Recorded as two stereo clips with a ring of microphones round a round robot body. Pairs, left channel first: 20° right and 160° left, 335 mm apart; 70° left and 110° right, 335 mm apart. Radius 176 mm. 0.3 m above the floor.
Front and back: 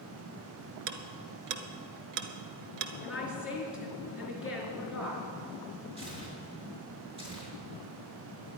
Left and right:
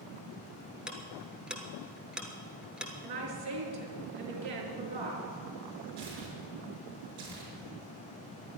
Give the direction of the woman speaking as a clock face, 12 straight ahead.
4 o'clock.